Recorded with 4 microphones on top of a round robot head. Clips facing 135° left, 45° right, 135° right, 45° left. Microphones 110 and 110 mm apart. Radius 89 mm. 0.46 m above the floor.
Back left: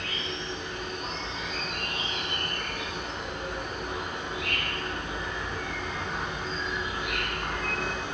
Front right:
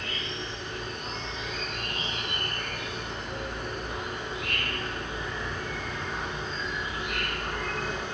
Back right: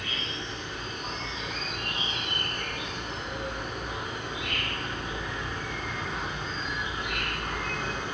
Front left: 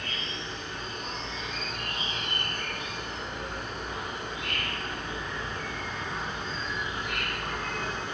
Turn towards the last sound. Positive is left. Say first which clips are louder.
# back left 1 dB, back right 1 dB
turn(degrees=145)